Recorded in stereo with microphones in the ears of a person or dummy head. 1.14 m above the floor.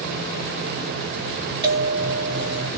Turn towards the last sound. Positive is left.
turn(degrees=-25)  # may be behind; listen again after turning